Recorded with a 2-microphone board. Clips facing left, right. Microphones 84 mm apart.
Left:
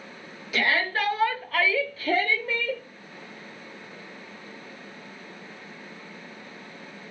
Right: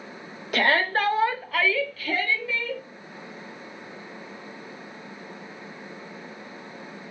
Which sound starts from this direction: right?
A shout, at 0.5 s.